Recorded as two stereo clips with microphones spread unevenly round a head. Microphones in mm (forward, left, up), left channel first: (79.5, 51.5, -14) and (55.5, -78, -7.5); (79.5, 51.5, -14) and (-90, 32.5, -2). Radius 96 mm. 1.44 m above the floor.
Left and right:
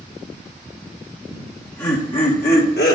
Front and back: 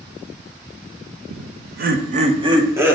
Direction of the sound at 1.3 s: Straight behind.